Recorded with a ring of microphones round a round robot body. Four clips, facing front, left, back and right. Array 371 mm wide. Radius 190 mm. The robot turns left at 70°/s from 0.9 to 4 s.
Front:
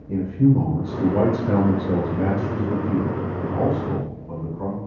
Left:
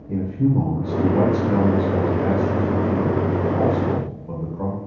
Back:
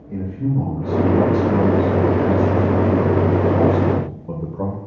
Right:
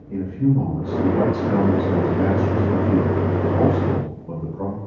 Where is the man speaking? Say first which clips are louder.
Even, front 5 dB; 45° left, 2 m; by 4.8 s 175° right, 2 m.